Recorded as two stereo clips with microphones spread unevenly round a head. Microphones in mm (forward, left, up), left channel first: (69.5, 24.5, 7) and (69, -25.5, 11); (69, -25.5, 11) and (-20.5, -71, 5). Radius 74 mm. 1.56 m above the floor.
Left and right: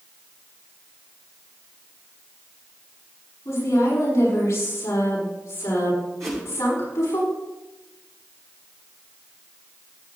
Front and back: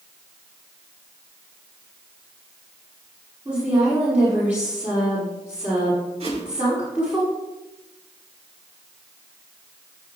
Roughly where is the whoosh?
Behind right.